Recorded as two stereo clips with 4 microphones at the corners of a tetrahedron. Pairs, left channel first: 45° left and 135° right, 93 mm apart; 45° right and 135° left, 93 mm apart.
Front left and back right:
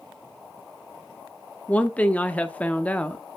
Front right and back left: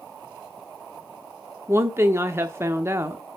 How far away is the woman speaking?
About 0.8 m.